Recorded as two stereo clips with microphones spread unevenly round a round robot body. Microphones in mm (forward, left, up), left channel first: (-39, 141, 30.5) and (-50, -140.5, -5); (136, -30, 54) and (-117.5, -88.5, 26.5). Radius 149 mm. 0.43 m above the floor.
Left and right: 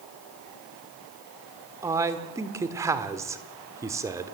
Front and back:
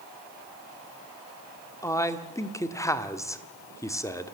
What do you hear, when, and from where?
1.8 s a man speaking: 60° right, 1.4 m